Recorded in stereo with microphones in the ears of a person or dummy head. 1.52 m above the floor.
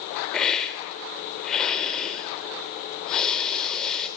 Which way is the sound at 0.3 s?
Centre (ahead or behind).